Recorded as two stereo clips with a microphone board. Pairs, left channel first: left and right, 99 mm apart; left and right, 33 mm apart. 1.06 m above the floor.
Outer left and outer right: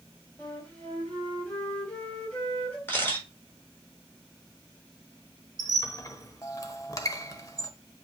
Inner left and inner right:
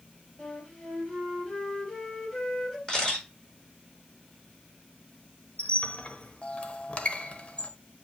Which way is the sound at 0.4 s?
15° left (ahead or behind).